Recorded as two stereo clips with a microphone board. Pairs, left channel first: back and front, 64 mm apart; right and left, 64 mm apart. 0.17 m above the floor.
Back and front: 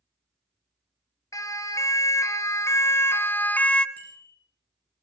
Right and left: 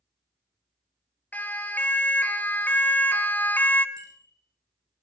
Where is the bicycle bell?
115° left, 8.5 m.